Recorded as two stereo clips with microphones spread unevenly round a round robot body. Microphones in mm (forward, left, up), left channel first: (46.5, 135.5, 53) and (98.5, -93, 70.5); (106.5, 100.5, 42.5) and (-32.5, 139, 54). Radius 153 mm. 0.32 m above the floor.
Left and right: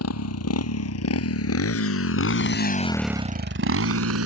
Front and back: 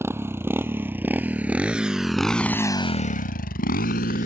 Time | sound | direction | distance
0.0 | a motorcycle | 90° left | ?